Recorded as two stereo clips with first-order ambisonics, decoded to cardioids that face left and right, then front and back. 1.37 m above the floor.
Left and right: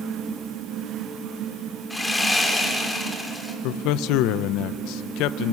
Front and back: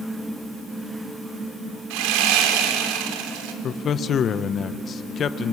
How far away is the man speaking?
About 0.7 m.